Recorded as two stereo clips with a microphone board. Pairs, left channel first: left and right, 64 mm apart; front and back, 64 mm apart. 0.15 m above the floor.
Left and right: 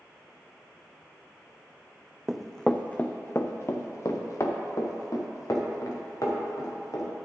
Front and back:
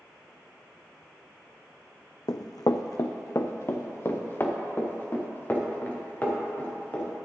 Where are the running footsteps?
5° right, 0.6 m; by 7.1 s 65° left, 3 m.